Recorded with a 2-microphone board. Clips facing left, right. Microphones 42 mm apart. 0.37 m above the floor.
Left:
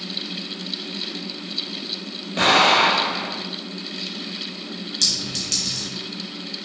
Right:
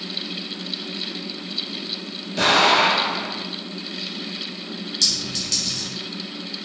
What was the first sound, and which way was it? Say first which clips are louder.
An explosion: left 1 dB; 35° left (ahead or behind).